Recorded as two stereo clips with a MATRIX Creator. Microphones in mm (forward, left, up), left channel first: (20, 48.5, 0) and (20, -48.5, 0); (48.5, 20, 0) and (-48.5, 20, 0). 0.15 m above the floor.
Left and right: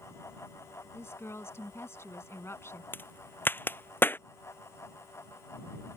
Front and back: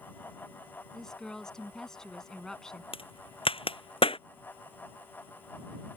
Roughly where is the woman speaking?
Left.